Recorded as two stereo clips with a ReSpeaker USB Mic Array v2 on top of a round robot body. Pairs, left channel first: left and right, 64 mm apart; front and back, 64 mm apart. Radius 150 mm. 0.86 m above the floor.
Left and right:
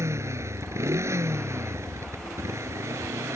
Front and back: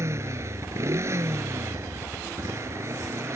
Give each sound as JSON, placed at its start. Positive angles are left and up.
{"t": 0.0, "sound": "a motorcycle", "azimuth_deg": -135}